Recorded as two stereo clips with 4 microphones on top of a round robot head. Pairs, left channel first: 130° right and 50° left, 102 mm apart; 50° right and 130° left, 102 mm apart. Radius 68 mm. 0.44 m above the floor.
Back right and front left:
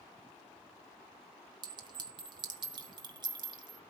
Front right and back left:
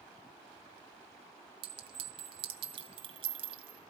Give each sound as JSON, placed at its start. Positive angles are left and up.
{"t": 1.6, "sound": "a clink", "azimuth_deg": 95, "distance_m": 2.0}